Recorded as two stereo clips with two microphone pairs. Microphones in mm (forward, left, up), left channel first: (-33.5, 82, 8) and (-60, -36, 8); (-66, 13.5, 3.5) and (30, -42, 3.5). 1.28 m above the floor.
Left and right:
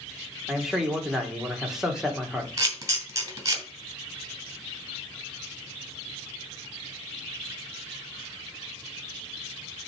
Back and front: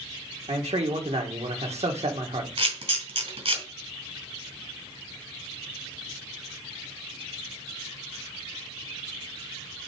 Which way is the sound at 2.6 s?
40° right.